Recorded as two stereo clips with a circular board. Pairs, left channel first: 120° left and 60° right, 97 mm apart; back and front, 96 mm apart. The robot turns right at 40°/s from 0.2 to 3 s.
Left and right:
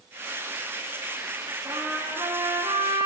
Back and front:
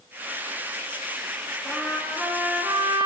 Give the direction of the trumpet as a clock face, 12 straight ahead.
3 o'clock.